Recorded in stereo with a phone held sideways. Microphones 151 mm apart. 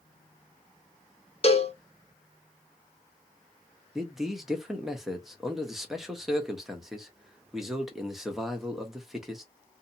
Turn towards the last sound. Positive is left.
turn(degrees=0)  # may be behind; listen again after turning